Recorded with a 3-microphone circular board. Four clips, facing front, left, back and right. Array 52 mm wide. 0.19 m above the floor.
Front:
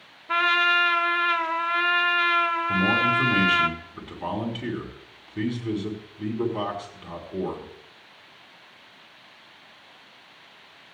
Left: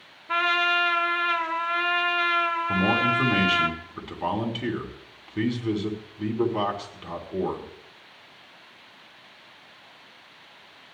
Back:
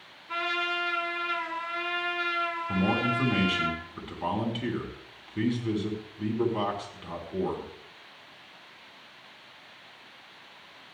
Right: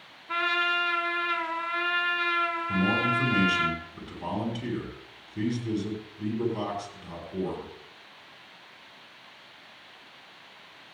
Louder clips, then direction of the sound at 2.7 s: Left 3 dB, front 4 dB; 95° left.